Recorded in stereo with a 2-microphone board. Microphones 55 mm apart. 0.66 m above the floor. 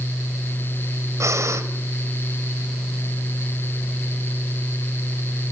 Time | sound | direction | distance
1.2 | breathing | 70° right (ahead or behind) | 2.0 m